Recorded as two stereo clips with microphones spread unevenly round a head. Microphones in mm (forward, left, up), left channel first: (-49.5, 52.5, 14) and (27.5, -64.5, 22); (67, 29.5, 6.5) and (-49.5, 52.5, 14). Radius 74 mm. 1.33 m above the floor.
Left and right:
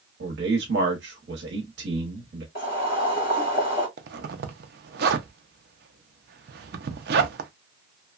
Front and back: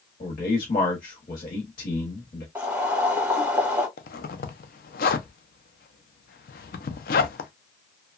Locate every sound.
0.2 s a man speaking: 45° right, 0.9 m
2.5 s boiling: 90° left, 1.8 m
4.0 s a zipper: 30° right, 0.5 m